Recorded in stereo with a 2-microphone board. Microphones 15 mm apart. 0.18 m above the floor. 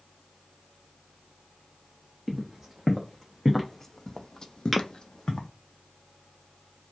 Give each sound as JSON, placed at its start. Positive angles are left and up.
{"t": 2.3, "sound": "footsteps", "side_deg": -10, "distance_m": 1.3}
{"t": 4.7, "sound": "tapping", "side_deg": -5, "distance_m": 1.2}